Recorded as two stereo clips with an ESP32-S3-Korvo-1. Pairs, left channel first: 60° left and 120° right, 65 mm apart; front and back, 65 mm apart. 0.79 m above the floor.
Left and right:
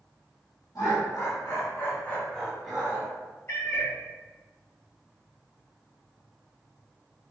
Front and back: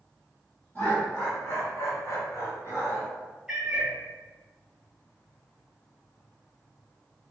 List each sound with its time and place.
0.8 s laughter: 60° left, 1.7 m; by 3.1 s 55° right, 1.4 m
3.5 s a cat meowing: 100° left, 1.0 m